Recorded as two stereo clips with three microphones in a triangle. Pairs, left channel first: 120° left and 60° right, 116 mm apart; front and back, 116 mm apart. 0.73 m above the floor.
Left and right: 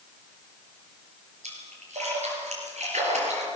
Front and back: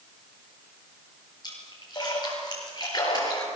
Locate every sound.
1.4 s a splash: 55° right, 6 m